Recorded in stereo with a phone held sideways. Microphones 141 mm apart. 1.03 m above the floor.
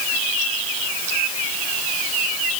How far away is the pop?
No pop in this recording.